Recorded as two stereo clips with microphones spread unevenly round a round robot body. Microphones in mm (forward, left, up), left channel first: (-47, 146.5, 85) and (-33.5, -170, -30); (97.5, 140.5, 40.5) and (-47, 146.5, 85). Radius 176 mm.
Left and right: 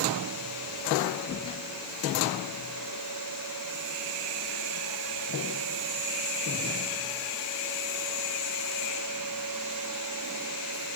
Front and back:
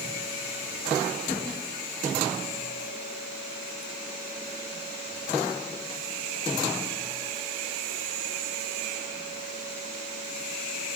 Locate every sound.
Only background noise.